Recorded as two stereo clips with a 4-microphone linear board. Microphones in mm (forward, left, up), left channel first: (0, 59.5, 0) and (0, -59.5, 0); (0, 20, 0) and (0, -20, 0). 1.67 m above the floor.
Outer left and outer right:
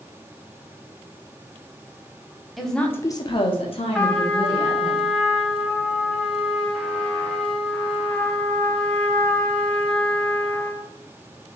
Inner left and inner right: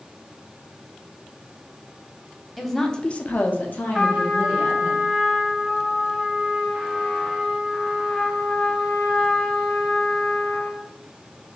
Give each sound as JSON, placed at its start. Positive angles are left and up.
{"t": 2.6, "sound": "a woman speaking", "side_deg": 0, "distance_m": 0.7}
{"t": 3.9, "sound": "a trumpet", "side_deg": 5, "distance_m": 0.6}